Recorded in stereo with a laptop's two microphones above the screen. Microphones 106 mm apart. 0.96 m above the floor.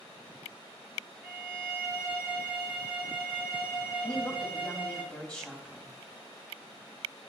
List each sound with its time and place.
1.2 s a violin: 20° right (ahead or behind), 2.5 m
4.0 s a woman speaking: 5° left (ahead or behind), 2 m